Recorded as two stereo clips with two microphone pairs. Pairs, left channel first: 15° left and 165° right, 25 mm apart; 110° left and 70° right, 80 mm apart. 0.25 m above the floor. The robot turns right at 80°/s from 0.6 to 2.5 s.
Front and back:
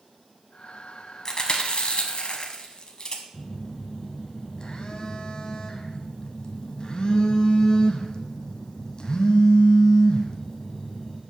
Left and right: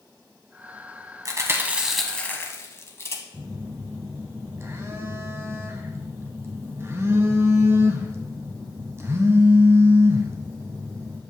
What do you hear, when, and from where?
1.2 s chewing: 40° right, 1.0 m; by 3.2 s 60° left, 1.0 m
3.3 s a phone buzzing: 25° right, 0.9 m